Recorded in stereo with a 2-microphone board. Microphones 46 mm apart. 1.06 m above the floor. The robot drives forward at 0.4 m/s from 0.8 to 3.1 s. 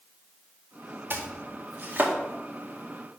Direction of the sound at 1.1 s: 55° right (ahead or behind).